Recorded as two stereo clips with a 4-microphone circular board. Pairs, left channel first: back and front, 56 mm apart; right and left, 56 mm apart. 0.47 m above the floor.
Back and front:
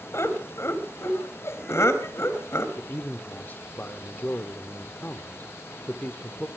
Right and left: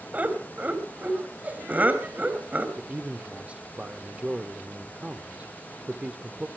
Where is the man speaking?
145° left, 1.2 m.